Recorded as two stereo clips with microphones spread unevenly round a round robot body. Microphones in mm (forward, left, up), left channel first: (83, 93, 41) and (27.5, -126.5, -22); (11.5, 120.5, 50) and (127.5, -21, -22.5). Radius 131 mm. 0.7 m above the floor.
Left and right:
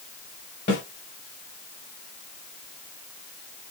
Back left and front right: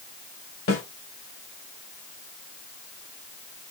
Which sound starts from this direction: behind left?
A snare drum, at 0.7 s.